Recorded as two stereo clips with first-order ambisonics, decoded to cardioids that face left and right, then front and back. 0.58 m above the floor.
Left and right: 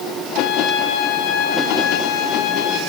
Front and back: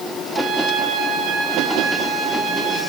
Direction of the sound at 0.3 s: 120° left.